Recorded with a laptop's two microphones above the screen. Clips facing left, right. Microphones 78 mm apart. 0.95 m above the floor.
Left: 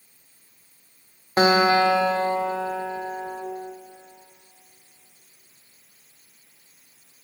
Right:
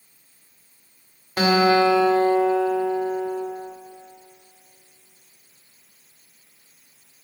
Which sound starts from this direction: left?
A guitar, at 1.4 s.